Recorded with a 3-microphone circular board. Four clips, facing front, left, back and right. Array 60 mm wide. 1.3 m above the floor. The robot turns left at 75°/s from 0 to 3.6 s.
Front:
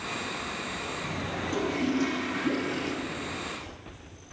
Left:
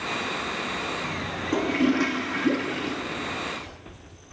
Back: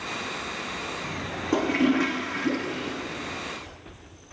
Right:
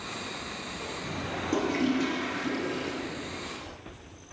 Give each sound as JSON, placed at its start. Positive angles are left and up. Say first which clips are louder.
{"t": 1.5, "sound": "a toilet flushing", "louder": "left 4 dB, back 7 dB", "azimuth_deg": 175, "distance_m": 3.0}